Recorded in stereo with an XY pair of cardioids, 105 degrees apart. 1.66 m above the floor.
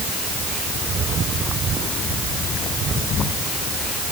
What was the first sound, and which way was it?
Only background noise.